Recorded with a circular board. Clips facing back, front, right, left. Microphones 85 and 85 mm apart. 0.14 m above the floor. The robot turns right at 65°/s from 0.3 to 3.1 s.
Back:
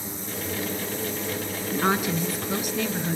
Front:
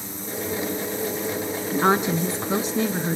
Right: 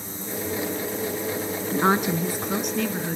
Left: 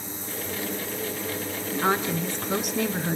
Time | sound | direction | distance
1.7 | a woman speaking | 55° right | 1.1 m